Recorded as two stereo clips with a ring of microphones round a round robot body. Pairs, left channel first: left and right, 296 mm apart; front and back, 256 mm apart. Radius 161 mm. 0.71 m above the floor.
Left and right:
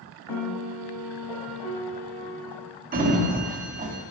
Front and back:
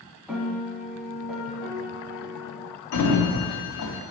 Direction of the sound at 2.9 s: 25° right.